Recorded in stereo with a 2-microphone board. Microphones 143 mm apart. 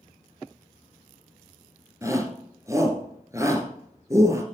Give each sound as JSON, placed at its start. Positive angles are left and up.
{"t": 2.0, "sound": "a shout", "side_deg": -20, "distance_m": 1.5}